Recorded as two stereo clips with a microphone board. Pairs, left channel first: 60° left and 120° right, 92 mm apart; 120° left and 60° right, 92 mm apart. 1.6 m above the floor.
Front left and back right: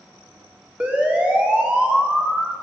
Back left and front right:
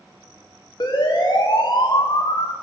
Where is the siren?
165° left, 4.5 m; by 2.5 s 150° left, 1.9 m.